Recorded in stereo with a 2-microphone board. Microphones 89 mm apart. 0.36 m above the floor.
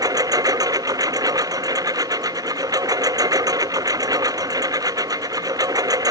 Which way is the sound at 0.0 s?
45° right (ahead or behind).